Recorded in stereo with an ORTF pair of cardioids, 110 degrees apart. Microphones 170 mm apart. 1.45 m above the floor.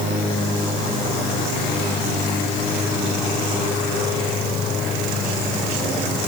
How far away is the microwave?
I don't hear a microwave.